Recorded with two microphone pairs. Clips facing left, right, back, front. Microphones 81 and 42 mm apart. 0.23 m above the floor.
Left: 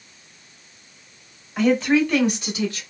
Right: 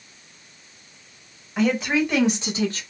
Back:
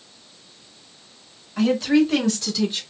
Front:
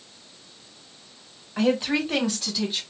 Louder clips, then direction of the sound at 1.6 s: Left 3 dB, back 5 dB; straight ahead.